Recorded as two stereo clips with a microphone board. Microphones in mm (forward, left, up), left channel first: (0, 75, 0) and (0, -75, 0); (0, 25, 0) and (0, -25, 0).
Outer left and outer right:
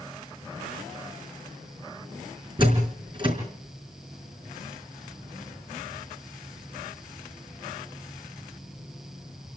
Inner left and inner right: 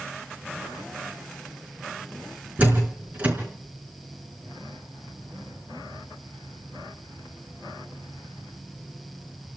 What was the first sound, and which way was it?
A door slam, 35° right (ahead or behind).